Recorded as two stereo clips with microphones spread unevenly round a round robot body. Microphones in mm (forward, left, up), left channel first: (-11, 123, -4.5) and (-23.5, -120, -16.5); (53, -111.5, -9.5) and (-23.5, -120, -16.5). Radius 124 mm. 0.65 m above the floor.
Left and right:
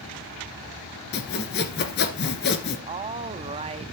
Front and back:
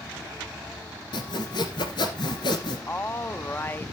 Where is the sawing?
40° left, 1.8 m.